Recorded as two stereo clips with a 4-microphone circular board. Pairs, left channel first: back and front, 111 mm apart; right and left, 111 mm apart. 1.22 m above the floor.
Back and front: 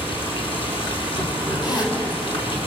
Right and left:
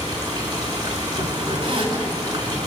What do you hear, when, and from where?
0.0 s running water: 140° left, 5 m
1.6 s a zipper: 130° left, 5 m